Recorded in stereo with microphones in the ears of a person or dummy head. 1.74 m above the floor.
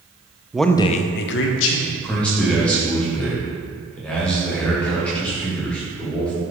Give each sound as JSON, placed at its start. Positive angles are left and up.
{"t": 0.5, "sound": "a man speaking", "side_deg": -5, "distance_m": 0.5}
{"t": 1.9, "sound": "a man speaking", "side_deg": 10, "distance_m": 1.8}